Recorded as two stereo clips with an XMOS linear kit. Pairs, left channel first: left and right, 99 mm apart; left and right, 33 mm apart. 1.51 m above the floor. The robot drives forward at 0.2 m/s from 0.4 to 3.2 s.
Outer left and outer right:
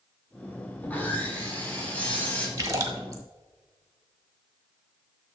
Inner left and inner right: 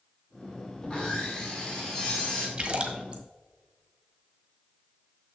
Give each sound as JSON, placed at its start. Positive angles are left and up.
{"t": 0.8, "sound": "sawing", "side_deg": 15, "distance_m": 1.8}
{"t": 2.6, "sound": "a splash", "side_deg": -35, "distance_m": 1.2}